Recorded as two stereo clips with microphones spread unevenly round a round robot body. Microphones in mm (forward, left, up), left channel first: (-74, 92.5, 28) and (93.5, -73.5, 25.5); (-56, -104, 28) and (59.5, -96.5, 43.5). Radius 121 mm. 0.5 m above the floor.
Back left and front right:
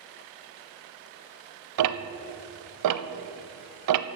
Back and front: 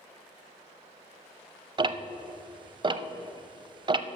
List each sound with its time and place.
1.8 s ticking: 40° right, 0.5 m